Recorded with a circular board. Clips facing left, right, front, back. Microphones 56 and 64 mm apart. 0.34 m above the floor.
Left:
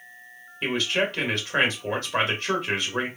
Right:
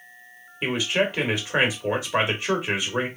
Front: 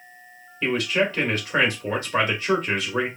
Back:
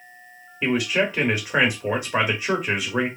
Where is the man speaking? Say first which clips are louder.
Right 1 dB, back 1 dB; 135° right, 1.0 m.